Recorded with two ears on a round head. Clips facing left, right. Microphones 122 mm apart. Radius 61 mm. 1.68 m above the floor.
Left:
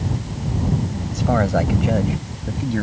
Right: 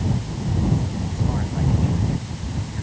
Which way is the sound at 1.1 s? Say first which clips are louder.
Left 12 dB; 85° left.